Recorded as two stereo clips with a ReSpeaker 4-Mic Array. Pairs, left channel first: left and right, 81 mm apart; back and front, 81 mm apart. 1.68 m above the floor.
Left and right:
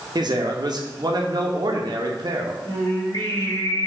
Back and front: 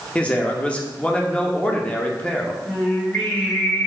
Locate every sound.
0.1 s a man speaking: 105° right, 0.7 m
2.6 s singing: 110° left, 1.4 m